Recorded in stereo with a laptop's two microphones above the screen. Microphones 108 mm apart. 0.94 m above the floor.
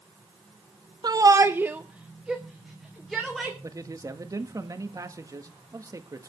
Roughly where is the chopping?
No chopping in this recording.